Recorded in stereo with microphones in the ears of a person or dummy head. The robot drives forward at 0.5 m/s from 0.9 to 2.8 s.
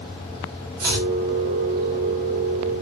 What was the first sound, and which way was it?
Chopping, 15° right (ahead or behind).